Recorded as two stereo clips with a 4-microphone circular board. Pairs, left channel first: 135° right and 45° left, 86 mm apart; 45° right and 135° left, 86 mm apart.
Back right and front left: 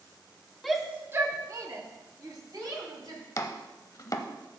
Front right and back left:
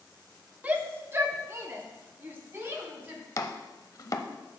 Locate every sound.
0.6 s a shout: 140° left, 0.7 m; by 3.2 s 75° left, 3 m
3.4 s chopping: 90° right, 0.7 m